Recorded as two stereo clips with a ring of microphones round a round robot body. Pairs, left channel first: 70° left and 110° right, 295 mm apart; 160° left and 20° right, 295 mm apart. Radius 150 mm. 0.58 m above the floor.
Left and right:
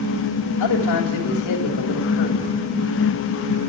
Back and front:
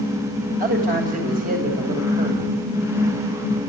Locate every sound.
0.6 s a man speaking: 40° left, 2.5 m